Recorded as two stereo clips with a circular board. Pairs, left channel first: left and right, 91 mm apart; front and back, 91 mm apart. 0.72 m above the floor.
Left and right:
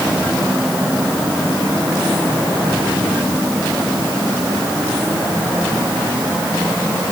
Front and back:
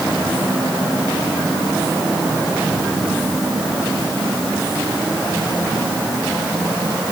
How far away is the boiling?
I don't hear boiling.